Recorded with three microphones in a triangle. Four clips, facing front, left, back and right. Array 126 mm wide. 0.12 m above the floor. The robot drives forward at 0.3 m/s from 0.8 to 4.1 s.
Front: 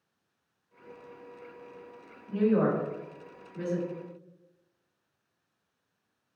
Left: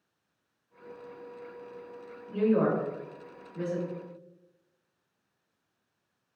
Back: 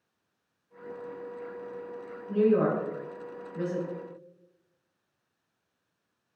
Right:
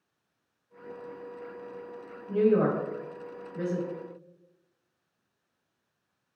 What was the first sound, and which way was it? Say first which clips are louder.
A woman speaking: right 2 dB, back 2 dB; 80° right.